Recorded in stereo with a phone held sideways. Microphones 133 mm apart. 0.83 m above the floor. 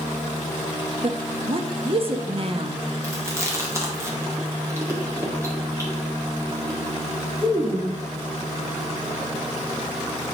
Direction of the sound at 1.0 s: 45° right (ahead or behind).